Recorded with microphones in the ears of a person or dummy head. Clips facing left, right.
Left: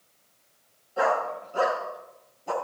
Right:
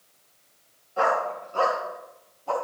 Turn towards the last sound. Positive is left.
turn(degrees=35)  # may be behind; listen again after turning